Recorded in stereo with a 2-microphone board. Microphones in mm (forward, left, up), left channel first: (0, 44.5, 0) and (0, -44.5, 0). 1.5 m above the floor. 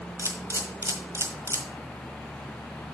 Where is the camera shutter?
30° right (ahead or behind), 1.4 m.